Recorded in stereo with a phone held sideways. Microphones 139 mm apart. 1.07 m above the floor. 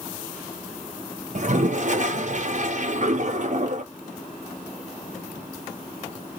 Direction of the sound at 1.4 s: 55° right (ahead or behind).